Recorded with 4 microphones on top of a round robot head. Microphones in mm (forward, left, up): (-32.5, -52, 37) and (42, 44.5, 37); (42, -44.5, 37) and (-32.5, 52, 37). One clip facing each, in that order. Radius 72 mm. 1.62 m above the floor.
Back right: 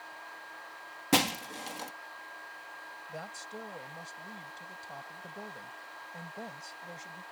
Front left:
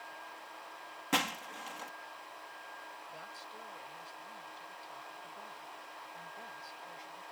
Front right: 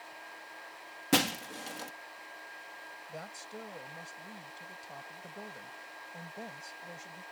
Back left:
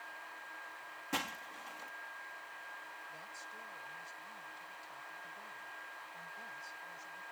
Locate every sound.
1.1 s breaking glass: 75° right
3.1 s a woman speaking: 85° right